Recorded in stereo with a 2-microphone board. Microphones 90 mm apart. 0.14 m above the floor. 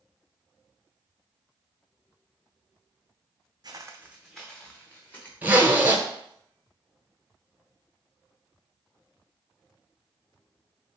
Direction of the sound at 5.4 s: 20° right (ahead or behind).